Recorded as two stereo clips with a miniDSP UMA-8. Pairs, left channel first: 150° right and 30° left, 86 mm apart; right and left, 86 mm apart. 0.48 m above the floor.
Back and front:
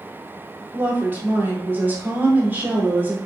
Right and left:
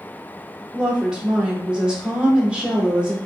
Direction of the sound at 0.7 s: 35° left.